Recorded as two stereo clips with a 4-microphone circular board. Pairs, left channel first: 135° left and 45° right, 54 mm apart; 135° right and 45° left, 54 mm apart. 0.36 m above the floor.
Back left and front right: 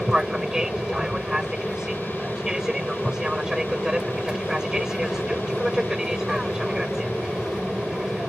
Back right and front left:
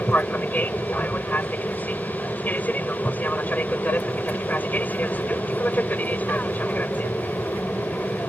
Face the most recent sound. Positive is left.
turn(degrees=-115)